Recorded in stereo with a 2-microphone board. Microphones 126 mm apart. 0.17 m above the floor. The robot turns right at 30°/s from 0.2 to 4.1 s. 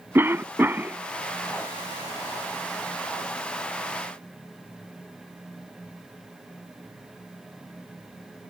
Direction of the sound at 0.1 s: 20° right (ahead or behind).